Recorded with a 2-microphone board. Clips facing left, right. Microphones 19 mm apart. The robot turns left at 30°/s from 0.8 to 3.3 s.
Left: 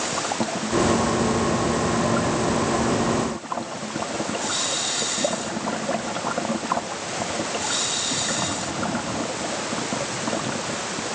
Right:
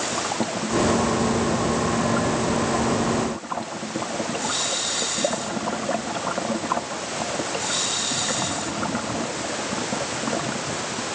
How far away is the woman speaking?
No woman speaking in this recording.